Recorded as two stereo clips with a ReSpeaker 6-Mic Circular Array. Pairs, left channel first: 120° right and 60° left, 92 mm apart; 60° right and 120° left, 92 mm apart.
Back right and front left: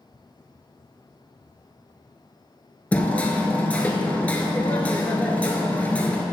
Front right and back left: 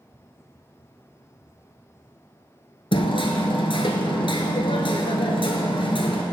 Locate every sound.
2.9 s hammering: 45° right, 1.1 m